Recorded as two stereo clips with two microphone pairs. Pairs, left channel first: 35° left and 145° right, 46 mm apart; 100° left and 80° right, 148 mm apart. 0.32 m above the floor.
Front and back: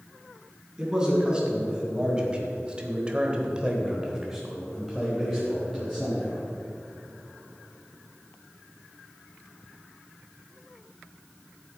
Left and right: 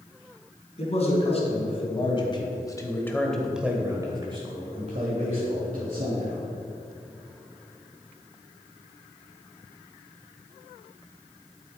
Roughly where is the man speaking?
Behind left.